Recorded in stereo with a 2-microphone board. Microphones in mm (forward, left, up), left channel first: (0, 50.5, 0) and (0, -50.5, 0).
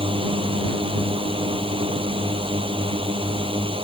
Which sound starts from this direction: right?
A drone, at 0.0 s.